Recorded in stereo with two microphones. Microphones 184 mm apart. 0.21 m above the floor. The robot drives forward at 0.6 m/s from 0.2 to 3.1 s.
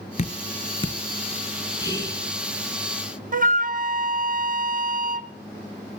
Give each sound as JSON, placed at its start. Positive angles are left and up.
{"t": 0.2, "sound": "dripping", "side_deg": 40, "distance_m": 0.6}
{"t": 1.8, "sound": "whispering", "side_deg": -15, "distance_m": 3.0}
{"t": 3.3, "sound": "a flute", "side_deg": -50, "distance_m": 0.5}